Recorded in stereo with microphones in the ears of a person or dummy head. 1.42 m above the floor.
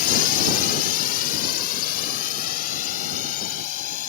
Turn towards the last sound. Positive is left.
turn(degrees=50)  # may be behind; listen again after turning